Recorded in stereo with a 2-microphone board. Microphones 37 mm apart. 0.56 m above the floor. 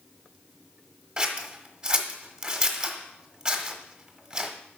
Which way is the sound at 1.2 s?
30° right (ahead or behind).